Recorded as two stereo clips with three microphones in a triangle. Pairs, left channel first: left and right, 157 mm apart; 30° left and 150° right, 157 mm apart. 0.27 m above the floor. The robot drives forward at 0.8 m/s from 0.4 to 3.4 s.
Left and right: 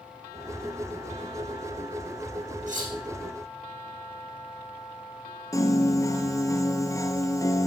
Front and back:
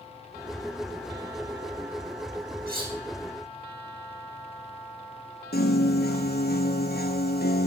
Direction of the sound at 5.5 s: 20° left.